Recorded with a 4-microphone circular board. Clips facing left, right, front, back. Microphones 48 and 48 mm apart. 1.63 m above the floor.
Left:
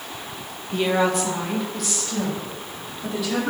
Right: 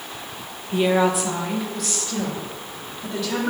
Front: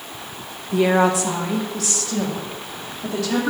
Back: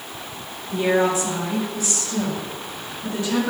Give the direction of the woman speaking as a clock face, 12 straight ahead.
12 o'clock.